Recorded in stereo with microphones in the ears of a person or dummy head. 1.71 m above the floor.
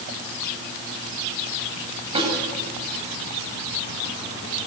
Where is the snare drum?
30° right (ahead or behind), 9.5 m.